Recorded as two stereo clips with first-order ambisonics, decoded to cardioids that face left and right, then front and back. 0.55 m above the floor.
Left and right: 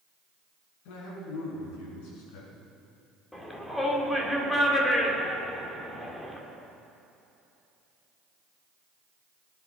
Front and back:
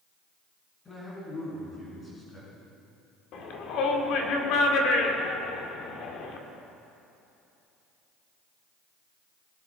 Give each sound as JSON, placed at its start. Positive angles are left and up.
{"t": 0.8, "sound": "a man speaking", "azimuth_deg": 75, "distance_m": 5.5}
{"t": 3.3, "sound": "a shout", "azimuth_deg": 10, "distance_m": 1.9}